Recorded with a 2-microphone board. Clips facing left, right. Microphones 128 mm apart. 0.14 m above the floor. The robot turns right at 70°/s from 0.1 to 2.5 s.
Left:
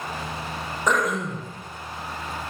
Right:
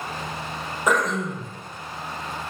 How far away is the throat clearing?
About 4.5 m.